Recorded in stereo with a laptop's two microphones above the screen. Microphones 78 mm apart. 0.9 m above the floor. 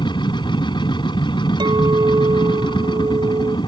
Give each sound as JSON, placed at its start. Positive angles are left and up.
{"t": 0.0, "sound": "a machine running", "side_deg": 85}
{"t": 1.6, "sound": "a clink", "side_deg": -80}